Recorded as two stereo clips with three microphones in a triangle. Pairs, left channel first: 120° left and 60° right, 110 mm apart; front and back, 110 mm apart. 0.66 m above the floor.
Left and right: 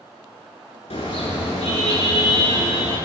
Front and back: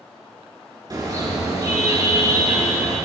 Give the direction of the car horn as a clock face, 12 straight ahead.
8 o'clock.